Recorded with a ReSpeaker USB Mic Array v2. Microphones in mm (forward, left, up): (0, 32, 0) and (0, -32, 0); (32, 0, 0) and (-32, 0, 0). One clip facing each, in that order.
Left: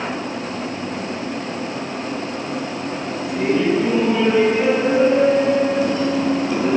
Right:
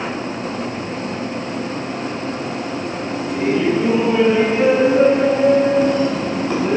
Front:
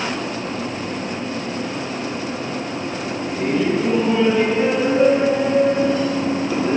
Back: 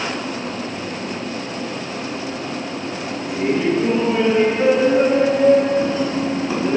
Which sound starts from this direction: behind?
Laughter, at 3.3 s.